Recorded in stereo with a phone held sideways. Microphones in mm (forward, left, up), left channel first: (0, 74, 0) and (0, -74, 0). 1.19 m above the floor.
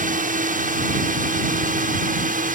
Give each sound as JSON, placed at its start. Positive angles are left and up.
{"t": 0.0, "sound": "a drone", "side_deg": -65}